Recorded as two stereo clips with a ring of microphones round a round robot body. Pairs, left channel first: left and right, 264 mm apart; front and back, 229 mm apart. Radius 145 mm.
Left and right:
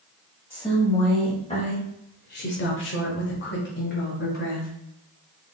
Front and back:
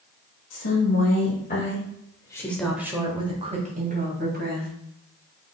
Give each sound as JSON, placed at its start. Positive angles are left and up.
{"t": 0.5, "sound": "a woman speaking", "azimuth_deg": 10, "distance_m": 2.0}